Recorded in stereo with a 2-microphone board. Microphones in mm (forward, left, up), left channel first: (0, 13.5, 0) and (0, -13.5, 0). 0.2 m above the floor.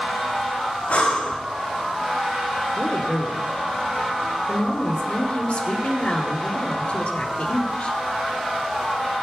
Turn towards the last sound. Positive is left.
turn(degrees=65)  # may be behind; listen again after turning